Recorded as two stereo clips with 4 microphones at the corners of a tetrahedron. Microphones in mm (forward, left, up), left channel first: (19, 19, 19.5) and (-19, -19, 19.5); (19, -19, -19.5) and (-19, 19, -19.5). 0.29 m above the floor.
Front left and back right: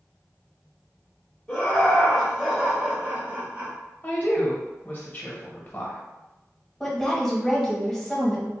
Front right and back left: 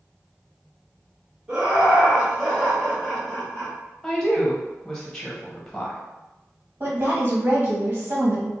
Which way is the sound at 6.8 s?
130° left.